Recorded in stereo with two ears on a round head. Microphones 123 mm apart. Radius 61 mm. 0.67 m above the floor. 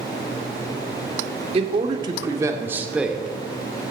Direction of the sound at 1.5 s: 45° right (ahead or behind).